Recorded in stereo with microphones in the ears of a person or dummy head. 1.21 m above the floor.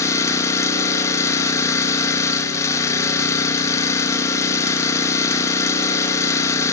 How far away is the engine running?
About 1.5 m.